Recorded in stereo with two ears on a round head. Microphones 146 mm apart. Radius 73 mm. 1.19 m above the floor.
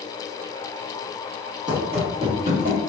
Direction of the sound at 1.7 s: 30° right (ahead or behind).